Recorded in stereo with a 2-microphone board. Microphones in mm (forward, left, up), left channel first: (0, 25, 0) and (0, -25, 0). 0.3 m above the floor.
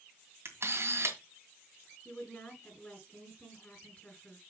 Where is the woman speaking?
25° left (ahead or behind), 4 m.